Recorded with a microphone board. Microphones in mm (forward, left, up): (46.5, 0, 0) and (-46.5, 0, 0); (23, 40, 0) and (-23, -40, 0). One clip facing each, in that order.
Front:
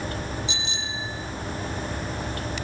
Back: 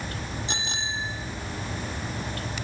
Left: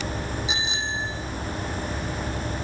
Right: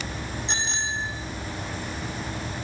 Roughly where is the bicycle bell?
Behind left.